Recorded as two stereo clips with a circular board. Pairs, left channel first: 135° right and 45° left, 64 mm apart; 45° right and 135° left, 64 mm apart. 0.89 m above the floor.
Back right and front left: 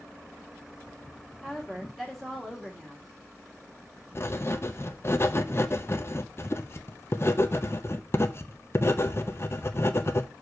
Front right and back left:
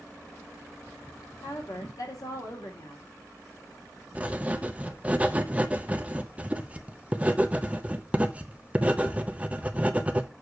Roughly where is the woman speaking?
Ahead right.